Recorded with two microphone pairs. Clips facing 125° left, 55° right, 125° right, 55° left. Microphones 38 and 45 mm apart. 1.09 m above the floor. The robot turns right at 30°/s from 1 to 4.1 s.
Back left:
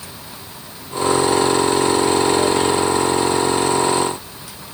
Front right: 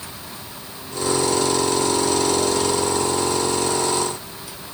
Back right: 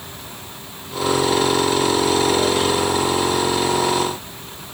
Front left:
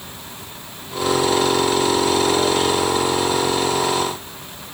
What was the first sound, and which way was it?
Only background noise.